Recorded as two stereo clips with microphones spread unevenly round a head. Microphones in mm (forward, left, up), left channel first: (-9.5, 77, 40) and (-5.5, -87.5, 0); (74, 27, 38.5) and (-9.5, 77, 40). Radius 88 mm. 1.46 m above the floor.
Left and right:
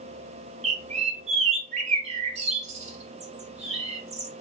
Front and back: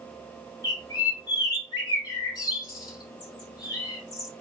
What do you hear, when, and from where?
0.6 s a bird: 40° right, 1.1 m